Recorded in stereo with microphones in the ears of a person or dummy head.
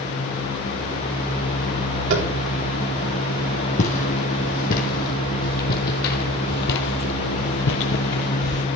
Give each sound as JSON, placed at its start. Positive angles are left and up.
{"t": 2.1, "sound": "tapping", "side_deg": -60, "distance_m": 5.5}
{"t": 3.8, "sound": "footsteps", "side_deg": 40, "distance_m": 4.5}